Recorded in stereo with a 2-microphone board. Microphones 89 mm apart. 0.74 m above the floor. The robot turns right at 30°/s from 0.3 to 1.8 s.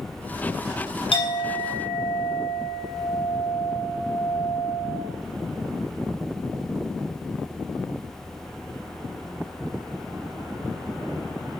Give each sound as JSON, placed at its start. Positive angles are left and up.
{"t": 1.1, "sound": "a clink", "side_deg": 75, "distance_m": 3.0}